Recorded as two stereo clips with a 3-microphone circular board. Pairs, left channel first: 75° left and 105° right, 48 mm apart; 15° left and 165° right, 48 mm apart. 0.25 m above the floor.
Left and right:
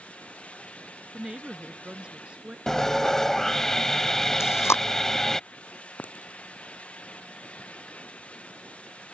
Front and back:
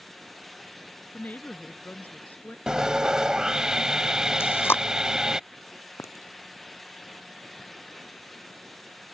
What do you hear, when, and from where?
1.1 s a woman speaking: 35° right
2.7 s sawing: 140° left
4.4 s chewing: 55° left
6.0 s a clink: 25° left